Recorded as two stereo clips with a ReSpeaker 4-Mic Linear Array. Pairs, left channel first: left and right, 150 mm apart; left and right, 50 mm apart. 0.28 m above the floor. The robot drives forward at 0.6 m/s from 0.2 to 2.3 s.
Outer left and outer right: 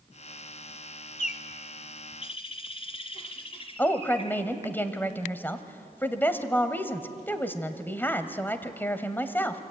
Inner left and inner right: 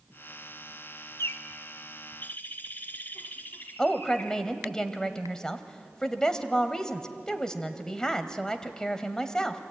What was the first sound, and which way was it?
A bird, 55° left (ahead or behind).